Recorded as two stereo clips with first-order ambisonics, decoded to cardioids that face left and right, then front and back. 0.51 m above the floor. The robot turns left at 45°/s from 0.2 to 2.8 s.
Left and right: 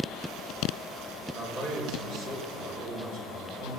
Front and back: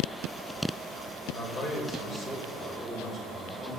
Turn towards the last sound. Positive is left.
turn(degrees=-80)